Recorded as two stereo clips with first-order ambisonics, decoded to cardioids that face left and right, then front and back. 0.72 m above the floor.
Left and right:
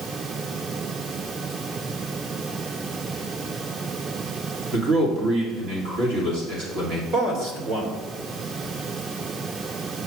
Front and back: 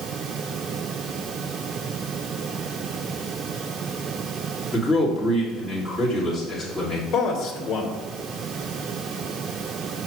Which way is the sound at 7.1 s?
50° right.